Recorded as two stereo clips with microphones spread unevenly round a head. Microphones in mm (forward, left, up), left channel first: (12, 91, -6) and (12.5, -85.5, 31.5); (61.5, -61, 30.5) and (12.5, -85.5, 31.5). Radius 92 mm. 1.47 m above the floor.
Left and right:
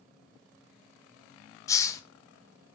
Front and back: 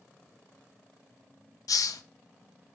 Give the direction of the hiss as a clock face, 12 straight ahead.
11 o'clock.